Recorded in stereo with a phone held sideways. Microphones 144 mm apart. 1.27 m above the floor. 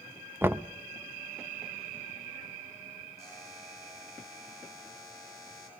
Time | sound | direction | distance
0.4 | knocking | 15° right (ahead or behind) | 0.5 m
3.2 | a buzzer | 20° left (ahead or behind) | 8.5 m